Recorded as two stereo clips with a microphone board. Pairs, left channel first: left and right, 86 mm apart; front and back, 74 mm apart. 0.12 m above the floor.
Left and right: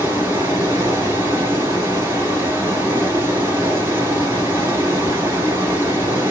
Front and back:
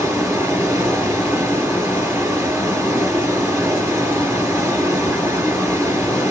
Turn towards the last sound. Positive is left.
turn(degrees=-145)